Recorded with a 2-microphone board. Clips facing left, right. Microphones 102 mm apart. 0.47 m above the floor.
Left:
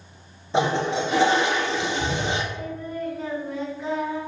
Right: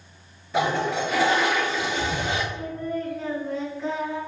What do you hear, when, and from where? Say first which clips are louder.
0.5 s a toilet flushing: left 1 dB; 25° left (ahead or behind), 1.1 m
2.5 s singing: right 2 dB; 5° left (ahead or behind), 3.5 m